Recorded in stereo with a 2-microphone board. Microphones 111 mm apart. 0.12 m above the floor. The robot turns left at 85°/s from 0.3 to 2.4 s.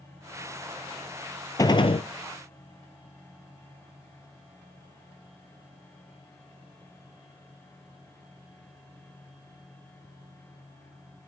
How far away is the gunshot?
About 0.8 m.